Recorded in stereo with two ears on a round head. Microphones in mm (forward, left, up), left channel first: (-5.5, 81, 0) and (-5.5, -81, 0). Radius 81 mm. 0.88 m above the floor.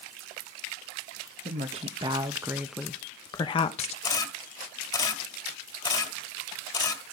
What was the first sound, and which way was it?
A woman speaking, 35° right (ahead or behind).